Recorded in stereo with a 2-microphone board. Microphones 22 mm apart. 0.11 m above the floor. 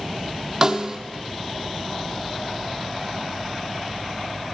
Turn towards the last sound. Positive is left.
turn(degrees=-20)  # may be behind; listen again after turning